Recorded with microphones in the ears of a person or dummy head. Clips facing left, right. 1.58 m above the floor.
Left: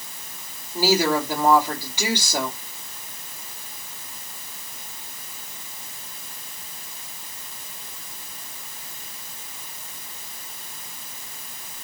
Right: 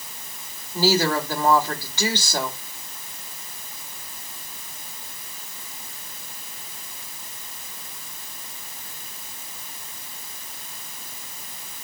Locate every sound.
0.7 s a woman speaking: 10° left (ahead or behind), 3.5 m